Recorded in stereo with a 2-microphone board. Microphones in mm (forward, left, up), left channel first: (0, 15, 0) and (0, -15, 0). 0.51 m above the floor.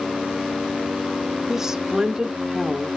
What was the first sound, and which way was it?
A woman speaking, 20° right (ahead or behind).